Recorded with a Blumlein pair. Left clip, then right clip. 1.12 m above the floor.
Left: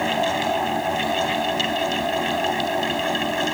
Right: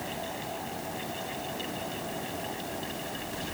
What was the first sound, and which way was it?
A fan, 35° left.